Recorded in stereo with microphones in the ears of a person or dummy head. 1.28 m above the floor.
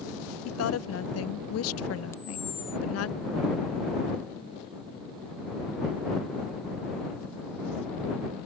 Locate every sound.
0.5 s a woman speaking: 85° left
2.1 s a camera shutter: 15° left (ahead or behind)